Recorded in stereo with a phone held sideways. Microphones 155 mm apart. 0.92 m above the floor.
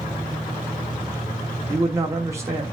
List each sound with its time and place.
1.7 s a man speaking: 20° right (ahead or behind), 1.2 m